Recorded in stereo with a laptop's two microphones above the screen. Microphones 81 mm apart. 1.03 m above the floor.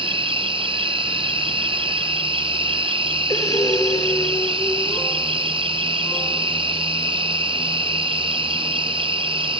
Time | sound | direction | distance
0.0 | an insect | 80° right | 0.8 m
3.3 | breathing | 45° left (ahead or behind) | 3 m